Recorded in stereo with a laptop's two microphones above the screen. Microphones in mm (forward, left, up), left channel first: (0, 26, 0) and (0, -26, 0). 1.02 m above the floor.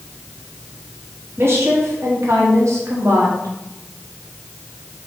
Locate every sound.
1.4 s a woman speaking: 55° right (ahead or behind), 2 m; by 3.5 s 80° right, 3 m